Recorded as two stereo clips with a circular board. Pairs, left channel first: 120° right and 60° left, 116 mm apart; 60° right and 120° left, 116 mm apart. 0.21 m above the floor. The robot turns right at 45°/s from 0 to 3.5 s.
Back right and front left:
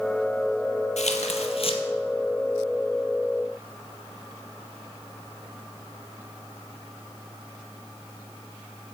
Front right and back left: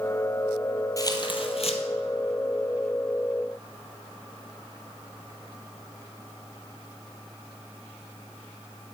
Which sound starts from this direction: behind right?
Tearing paper, at 1.0 s.